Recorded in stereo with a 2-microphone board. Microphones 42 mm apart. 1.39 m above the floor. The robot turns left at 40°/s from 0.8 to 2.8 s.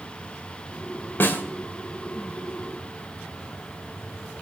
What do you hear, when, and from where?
1.2 s a snare drum: 55° left (ahead or behind), 1.8 m; by 1.4 s 50° left (ahead or behind), 1.8 m